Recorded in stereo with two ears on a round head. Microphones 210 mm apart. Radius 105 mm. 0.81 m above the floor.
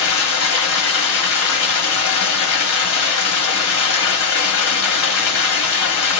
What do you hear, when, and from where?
0.0 s running water: 70° left (ahead or behind), 1.3 m